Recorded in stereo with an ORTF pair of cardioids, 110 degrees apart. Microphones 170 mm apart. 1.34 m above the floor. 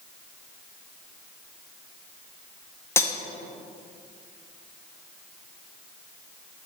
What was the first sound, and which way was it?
Cutlery clinking, 15° left.